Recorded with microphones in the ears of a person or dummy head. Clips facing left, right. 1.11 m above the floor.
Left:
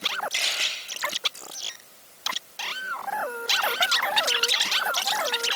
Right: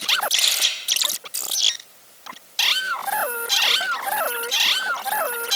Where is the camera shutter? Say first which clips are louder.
Right 1 dB; 45° left (ahead or behind), 5.5 m.